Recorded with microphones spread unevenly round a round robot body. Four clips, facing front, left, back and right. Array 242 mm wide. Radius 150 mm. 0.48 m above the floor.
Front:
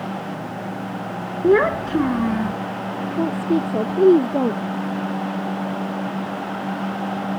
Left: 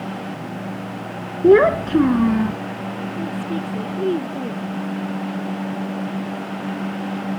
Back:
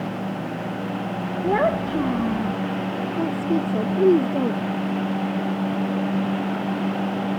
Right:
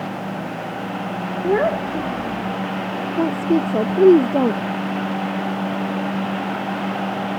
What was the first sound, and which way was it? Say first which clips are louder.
A child speaking: left 7 dB, front 5 dB; 105° left.